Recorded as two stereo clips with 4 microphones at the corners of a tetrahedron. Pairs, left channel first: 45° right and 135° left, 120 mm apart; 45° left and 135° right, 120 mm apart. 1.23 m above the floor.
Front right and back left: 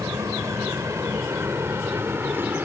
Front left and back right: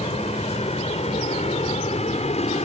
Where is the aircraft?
70° left; by 2.7 s 60° left.